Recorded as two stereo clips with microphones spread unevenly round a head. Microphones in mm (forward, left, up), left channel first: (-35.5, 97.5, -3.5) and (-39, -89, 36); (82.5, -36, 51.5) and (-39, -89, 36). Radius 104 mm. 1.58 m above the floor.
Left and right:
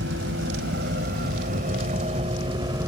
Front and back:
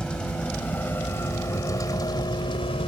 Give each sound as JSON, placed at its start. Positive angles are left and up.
{"t": 0.0, "sound": "a vehicle", "azimuth_deg": -60}